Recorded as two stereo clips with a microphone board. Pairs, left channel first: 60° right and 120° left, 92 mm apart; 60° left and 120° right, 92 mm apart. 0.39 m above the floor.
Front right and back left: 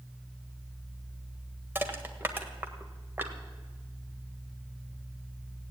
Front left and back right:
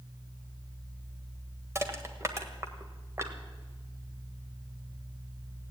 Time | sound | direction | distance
1.8 | crushing | 175° right | 1.4 m